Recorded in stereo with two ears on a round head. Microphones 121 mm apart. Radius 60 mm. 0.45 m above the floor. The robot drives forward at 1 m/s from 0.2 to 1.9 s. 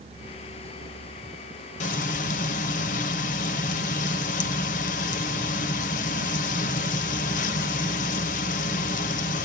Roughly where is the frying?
Left.